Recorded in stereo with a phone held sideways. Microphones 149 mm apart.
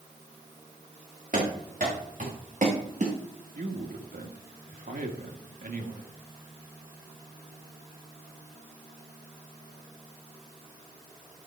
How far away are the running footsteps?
About 4.5 m.